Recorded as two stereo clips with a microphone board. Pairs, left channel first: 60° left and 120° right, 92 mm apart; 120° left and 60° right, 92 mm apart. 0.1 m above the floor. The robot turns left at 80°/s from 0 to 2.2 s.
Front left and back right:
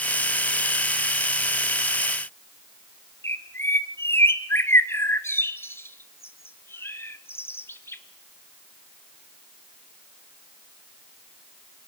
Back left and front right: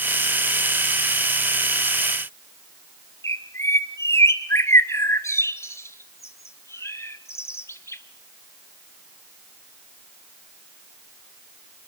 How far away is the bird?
About 0.7 m.